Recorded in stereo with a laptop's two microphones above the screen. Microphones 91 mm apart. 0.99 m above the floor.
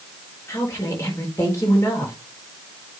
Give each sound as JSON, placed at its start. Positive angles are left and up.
{"t": 0.5, "sound": "a woman speaking", "side_deg": 35, "distance_m": 4.0}